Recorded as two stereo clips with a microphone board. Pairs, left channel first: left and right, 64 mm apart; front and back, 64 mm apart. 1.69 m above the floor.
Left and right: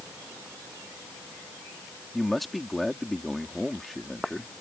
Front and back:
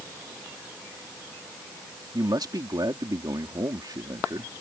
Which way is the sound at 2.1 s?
Straight behind.